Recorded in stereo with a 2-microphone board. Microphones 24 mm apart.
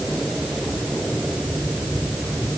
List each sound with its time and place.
Only background noise.